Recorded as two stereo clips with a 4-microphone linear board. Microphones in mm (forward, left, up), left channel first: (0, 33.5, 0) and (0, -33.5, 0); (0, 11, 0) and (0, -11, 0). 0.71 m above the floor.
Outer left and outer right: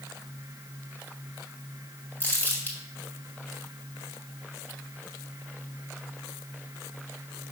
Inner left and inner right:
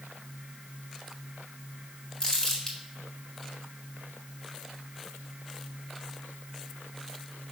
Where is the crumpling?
30° left (ahead or behind), 2 m.